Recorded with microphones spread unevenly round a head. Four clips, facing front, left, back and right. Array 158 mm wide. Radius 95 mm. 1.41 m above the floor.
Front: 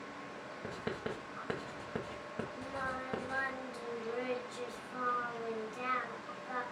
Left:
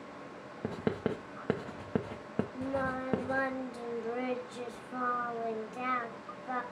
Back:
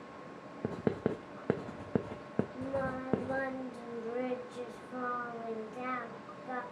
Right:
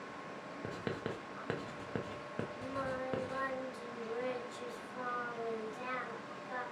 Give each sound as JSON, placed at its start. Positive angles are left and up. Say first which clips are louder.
{"t": 0.6, "sound": "writing", "louder": "left 8 dB, back 7 dB", "azimuth_deg": 150, "distance_m": 0.8}
{"t": 2.5, "sound": "singing", "louder": "left 5 dB, back 4 dB", "azimuth_deg": 110, "distance_m": 1.4}